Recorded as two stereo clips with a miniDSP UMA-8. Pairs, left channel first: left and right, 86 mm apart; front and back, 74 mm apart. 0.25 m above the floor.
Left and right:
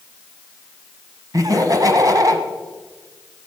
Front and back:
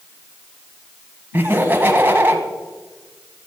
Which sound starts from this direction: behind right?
Laughter, at 1.3 s.